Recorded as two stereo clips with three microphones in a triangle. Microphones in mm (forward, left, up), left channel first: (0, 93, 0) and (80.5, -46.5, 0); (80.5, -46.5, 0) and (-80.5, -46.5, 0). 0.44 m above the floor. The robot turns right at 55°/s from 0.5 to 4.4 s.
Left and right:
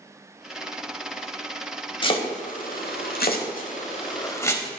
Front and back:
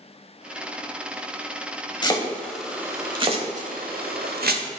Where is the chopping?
60° left, 0.8 m; by 4.6 s 170° right, 0.8 m.